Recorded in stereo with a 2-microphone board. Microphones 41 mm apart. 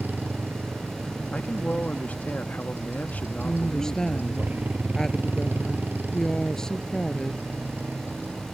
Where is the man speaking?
40° left (ahead or behind).